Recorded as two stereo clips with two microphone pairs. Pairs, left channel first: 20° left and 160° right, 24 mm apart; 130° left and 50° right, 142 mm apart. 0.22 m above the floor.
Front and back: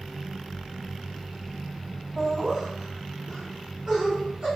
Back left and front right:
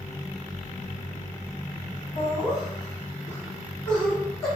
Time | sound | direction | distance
2.2 | laughter | 165° left | 1.9 m